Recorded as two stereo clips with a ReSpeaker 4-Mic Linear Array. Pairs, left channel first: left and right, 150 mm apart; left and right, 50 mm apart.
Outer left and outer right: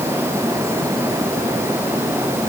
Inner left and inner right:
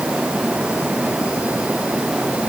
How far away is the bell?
No bell in this recording.